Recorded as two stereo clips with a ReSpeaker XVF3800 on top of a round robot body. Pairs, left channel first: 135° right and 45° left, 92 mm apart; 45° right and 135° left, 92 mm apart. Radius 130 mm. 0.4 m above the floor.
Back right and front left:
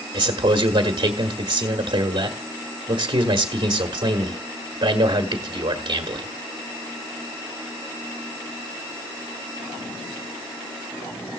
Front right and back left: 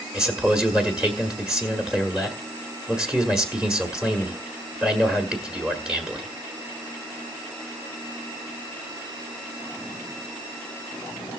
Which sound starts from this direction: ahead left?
A man speaking, at 0.1 s.